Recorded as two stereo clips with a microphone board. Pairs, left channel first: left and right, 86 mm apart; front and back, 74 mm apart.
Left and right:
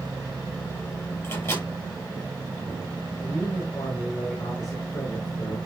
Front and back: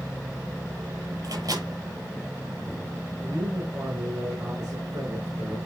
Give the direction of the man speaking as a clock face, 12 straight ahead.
8 o'clock.